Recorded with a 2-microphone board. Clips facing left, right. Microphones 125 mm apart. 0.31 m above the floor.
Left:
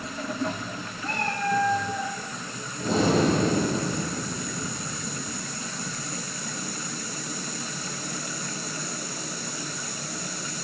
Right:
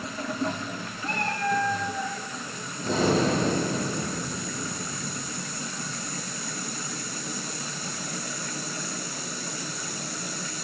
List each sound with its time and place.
1.0 s a cat meowing: 30° left (ahead or behind), 6 m
2.8 s breathing: 75° left (ahead or behind), 8.5 m